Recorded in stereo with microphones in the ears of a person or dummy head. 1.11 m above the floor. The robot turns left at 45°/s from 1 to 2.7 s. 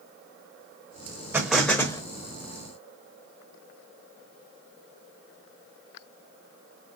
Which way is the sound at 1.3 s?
170° right.